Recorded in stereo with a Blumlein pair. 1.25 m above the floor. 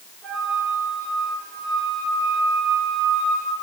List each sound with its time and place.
0.2 s a flute: 25° right, 6.5 m